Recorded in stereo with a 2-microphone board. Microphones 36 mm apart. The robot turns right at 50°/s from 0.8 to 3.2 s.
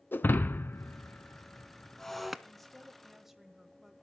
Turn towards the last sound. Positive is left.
turn(degrees=-10)  # may be behind; listen again after turning